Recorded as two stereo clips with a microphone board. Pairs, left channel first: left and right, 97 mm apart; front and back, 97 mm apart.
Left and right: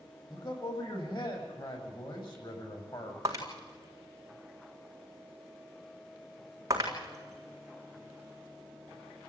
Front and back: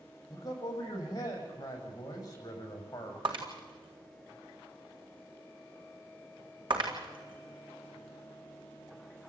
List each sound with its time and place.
0.3 s a man speaking: 50° left, 6 m
3.2 s breaking glass: 145° right, 4 m